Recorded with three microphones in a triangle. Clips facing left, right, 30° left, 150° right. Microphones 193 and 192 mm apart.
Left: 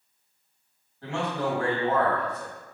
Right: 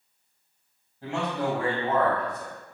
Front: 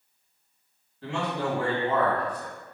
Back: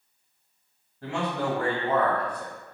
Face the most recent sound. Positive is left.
turn(degrees=-160)